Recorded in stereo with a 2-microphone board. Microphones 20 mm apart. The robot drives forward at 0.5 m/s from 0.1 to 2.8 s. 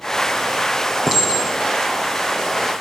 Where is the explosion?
I don't hear an explosion.